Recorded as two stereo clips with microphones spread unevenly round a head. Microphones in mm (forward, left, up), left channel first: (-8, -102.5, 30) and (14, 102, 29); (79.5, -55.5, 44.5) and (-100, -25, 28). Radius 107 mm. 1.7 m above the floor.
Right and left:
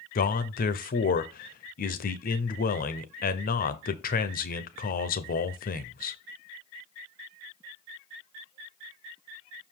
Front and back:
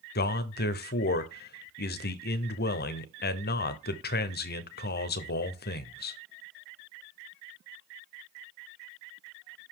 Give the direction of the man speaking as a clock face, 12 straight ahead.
2 o'clock.